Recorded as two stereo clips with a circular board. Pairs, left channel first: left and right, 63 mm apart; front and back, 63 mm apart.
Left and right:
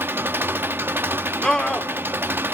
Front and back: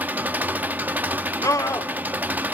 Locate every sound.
0.0 s an engine running: 130° right, 0.9 m
1.4 s a scream: 10° left, 2.0 m